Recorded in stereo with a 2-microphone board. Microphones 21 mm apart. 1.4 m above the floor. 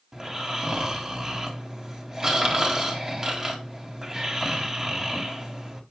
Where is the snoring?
30° right (ahead or behind), 2 m.